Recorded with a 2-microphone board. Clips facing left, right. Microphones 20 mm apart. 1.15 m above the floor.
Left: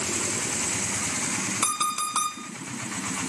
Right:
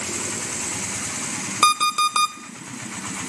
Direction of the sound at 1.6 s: 60° right (ahead or behind).